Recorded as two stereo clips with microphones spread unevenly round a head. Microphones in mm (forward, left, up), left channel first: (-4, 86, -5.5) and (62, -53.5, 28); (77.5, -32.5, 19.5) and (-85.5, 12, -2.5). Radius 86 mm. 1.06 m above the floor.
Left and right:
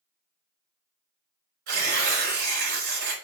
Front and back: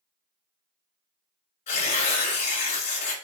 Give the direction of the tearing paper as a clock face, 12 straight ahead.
2 o'clock.